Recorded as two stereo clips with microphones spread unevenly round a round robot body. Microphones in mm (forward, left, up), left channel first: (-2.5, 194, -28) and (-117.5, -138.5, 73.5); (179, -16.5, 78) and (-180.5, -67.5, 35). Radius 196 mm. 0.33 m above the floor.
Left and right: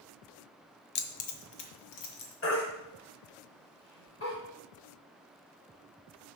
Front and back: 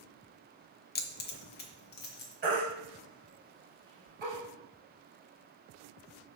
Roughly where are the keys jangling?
Left.